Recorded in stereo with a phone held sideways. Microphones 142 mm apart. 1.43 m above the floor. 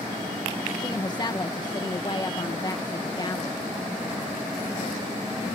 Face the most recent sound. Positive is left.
turn(degrees=30)  # may be behind; listen again after turning